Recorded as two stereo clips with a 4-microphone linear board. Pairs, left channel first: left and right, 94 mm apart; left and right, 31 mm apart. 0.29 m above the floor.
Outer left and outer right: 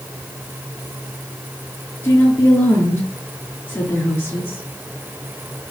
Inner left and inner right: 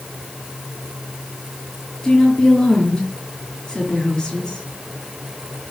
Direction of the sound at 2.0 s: 25° left (ahead or behind).